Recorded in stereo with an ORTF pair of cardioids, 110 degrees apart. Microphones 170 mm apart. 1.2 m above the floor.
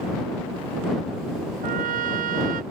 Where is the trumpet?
60° right.